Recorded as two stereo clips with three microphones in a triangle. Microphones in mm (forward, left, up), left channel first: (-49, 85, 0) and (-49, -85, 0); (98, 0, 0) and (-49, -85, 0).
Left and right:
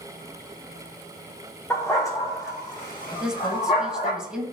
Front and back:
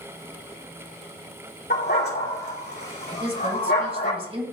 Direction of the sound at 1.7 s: 15° left.